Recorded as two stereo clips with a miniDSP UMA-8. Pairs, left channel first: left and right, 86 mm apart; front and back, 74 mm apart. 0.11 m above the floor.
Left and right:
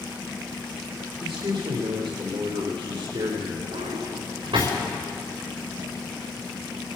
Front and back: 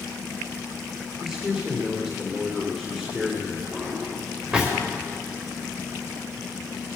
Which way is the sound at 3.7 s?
105° right.